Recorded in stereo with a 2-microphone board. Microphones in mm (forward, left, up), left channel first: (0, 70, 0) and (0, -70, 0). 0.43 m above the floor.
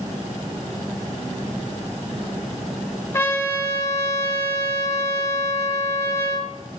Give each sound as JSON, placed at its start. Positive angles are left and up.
{"t": 3.1, "sound": "a trumpet", "side_deg": 20, "distance_m": 0.8}